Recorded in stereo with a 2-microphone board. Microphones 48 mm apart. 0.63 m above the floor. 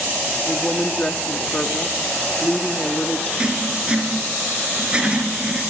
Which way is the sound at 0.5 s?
25° left (ahead or behind).